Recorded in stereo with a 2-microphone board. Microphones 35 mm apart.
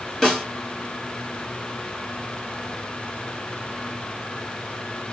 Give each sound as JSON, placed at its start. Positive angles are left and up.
{"t": 0.2, "sound": "a snare drum", "side_deg": 10, "distance_m": 1.4}